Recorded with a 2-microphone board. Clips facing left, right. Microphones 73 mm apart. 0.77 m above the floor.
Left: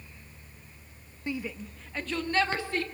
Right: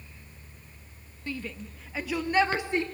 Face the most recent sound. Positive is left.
turn(degrees=-20)  # may be behind; listen again after turning